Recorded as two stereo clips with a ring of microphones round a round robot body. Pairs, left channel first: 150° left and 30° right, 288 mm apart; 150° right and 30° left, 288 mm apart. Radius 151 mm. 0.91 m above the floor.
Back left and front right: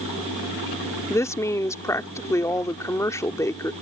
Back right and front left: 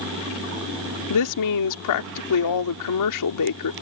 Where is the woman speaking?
130° right.